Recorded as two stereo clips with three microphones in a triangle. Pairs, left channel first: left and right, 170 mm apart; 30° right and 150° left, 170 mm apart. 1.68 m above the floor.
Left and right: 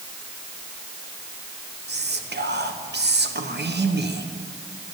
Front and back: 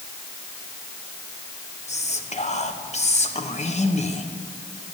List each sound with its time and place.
1.9 s whispering: 80° right, 1.0 m